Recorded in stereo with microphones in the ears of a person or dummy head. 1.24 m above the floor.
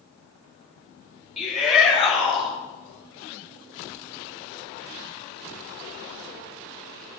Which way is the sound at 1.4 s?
Centre (ahead or behind).